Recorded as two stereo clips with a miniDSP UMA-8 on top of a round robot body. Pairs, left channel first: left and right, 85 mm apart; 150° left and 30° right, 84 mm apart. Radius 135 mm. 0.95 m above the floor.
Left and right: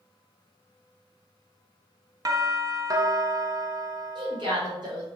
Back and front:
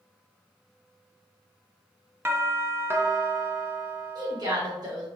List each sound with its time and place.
2.2 s a doorbell: 80° right, 0.8 m
4.2 s a woman speaking: 70° right, 2.0 m